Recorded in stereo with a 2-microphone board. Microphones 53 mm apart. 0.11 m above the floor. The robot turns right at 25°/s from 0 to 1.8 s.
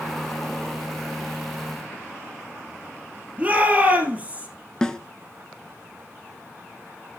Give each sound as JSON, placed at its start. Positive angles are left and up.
{"t": 3.4, "sound": "a shout", "side_deg": -25, "distance_m": 3.0}
{"t": 4.8, "sound": "a snare drum", "side_deg": 15, "distance_m": 0.7}